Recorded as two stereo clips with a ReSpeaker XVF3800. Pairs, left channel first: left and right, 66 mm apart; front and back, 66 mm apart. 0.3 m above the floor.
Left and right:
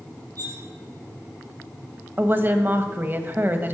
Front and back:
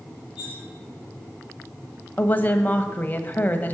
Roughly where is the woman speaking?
Ahead right.